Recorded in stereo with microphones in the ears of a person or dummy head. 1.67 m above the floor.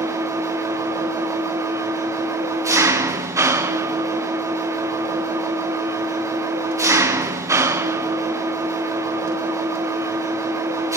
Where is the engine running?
20° right (ahead or behind), 0.7 m.